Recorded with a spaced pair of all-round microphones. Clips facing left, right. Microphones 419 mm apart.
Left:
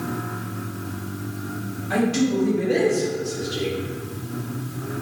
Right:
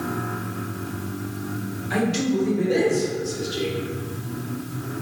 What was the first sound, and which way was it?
A man speaking, 60° left (ahead or behind).